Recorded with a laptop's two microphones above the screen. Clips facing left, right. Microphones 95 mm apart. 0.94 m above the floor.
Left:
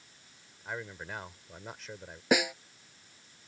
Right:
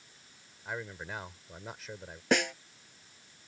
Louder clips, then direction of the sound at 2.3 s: Left 1 dB; 5° left (ahead or behind).